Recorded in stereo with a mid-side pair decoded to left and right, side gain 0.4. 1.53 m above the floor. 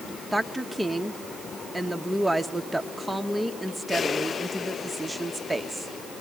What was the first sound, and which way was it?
A woman speaking, straight ahead.